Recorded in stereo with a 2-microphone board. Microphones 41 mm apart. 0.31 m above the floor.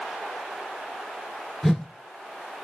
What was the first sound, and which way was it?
A whoosh, 5° left (ahead or behind).